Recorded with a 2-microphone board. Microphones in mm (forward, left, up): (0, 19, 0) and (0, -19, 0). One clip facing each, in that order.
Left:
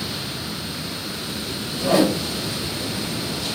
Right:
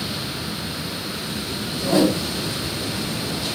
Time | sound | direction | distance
1.8 | a whoosh | 80° left | 1.7 m